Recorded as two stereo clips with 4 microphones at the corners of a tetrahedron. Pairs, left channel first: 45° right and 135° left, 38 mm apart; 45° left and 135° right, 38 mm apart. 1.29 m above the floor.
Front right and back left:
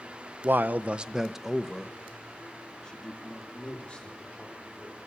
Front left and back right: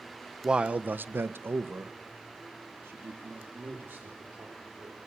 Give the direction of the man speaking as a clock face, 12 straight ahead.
7 o'clock.